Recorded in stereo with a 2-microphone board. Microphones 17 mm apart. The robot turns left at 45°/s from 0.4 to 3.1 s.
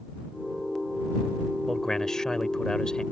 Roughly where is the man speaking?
Behind left.